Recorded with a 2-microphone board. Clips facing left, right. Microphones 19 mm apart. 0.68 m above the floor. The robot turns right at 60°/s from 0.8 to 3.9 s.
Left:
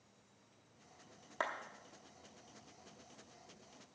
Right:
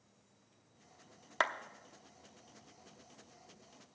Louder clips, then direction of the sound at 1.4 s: Right 6 dB; 60° right (ahead or behind).